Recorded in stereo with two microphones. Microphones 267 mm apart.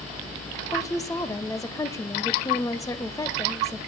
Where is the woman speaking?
10° left (ahead or behind), 0.9 m.